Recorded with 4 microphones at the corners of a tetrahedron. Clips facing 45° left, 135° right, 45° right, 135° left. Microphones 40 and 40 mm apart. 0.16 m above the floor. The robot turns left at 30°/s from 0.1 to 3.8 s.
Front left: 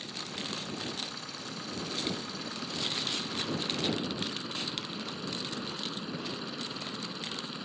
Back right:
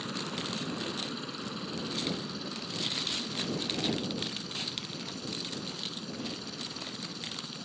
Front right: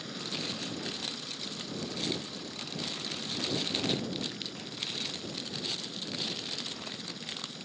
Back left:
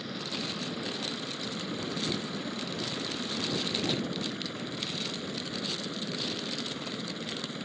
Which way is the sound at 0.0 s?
150° right.